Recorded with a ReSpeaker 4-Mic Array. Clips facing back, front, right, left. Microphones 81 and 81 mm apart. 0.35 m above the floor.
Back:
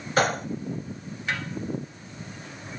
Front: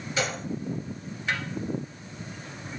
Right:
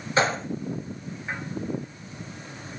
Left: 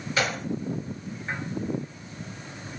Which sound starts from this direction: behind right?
A gunshot, at 0.2 s.